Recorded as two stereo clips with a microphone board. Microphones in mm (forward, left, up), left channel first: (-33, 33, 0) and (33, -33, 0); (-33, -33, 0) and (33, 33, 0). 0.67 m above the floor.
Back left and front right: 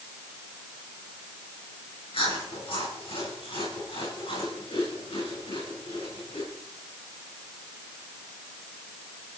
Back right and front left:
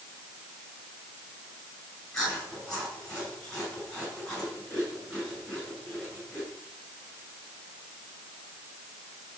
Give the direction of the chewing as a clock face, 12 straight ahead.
7 o'clock.